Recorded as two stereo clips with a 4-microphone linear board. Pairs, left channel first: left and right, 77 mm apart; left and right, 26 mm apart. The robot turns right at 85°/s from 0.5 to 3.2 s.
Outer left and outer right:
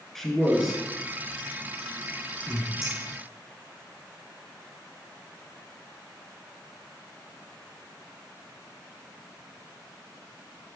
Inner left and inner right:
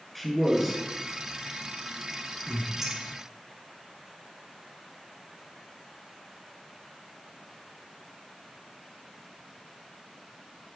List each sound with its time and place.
0.1 s a man speaking: 5° left (ahead or behind), 1.2 m; by 2.7 s centre (ahead or behind), 1.2 m
2.8 s a clink: 15° right (ahead or behind), 2.5 m; by 2.9 s 5° right (ahead or behind), 2.5 m